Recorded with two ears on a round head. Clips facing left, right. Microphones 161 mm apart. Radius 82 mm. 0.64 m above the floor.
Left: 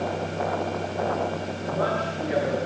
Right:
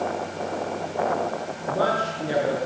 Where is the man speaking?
40° right (ahead or behind), 9.5 m.